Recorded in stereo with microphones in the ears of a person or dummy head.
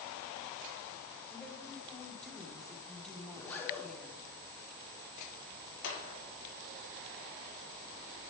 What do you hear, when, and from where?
1.3 s a woman speaking: 5° left (ahead or behind), 1.5 m
3.3 s a zipper: 15° left (ahead or behind), 1.4 m
5.8 s a clap: 65° left (ahead or behind), 2.5 m